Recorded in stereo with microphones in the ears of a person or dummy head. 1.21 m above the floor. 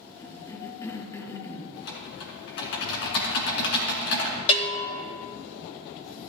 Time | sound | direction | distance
0.2 | a cough | 25° left (ahead or behind) | 1.1 m
1.8 | typing on a keyboard | 45° left (ahead or behind) | 2 m
4.5 | a bell | 45° left (ahead or behind) | 1.5 m